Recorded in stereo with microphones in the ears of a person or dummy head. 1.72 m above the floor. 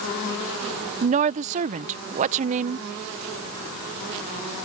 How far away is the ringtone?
No ringtone in this recording.